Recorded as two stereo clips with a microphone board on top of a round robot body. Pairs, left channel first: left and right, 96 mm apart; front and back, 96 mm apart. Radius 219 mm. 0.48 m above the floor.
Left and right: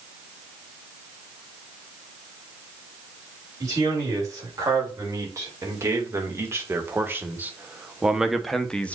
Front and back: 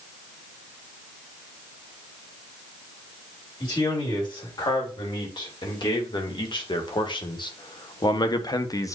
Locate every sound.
3.6 s a man speaking: 40° right, 4 m; by 8.9 s 25° left, 1.2 m